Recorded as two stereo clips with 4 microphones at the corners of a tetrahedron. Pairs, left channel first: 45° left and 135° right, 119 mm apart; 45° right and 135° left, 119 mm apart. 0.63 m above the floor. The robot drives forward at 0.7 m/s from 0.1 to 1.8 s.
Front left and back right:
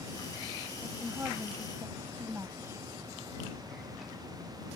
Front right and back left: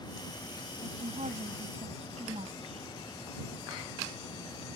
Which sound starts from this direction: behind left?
A woman speaking, at 0.8 s.